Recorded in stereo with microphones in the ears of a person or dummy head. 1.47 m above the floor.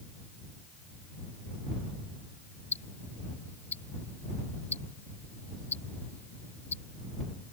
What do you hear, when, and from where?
2.7 s ticking: 15° left (ahead or behind)